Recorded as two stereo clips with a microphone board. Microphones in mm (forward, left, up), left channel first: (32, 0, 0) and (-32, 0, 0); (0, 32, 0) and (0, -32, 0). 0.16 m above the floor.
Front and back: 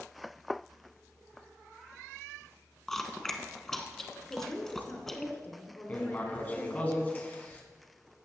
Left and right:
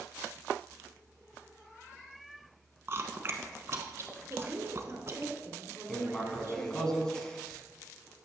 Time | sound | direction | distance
2.9 | chewing | 80° right | 1.0 m
4.3 | a woman speaking | 60° right | 1.8 m
5.9 | writing | 20° left | 1.5 m